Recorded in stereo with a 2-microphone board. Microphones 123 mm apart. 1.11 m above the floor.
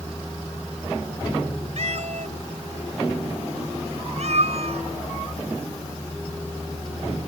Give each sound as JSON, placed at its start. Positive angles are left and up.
{"t": 1.8, "sound": "a cat meowing", "side_deg": -65}